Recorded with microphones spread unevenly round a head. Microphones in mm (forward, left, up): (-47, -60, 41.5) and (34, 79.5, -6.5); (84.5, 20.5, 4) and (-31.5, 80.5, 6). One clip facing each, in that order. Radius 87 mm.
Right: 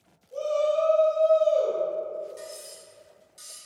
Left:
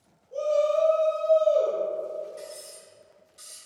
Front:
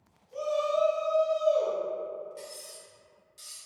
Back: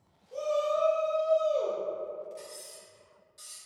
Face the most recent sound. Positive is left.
turn(degrees=-100)